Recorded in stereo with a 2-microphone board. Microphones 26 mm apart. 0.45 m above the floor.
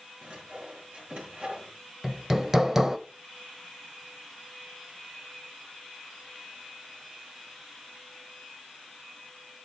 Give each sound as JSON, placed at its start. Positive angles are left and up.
{"t": 0.2, "sound": "sawing", "side_deg": -50, "distance_m": 7.0}
{"t": 2.0, "sound": "hammering", "side_deg": -15, "distance_m": 0.9}